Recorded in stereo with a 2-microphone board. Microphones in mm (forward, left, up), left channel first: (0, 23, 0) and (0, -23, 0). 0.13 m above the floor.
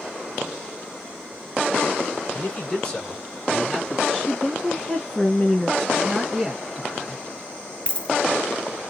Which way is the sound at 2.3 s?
40° left (ahead or behind).